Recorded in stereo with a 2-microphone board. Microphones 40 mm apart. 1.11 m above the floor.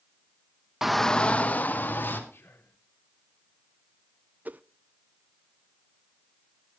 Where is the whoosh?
45° right (ahead or behind), 0.6 m.